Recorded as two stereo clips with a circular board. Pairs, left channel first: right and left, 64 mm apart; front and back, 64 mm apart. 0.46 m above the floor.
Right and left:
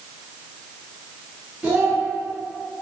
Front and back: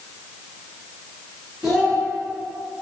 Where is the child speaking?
95° left, 0.7 m.